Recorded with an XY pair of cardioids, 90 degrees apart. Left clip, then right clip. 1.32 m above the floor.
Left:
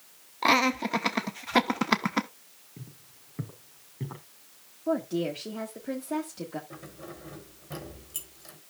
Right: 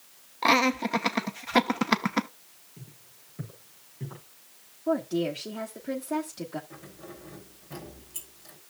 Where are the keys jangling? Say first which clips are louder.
Left 2 dB; 45° left, 3.5 m.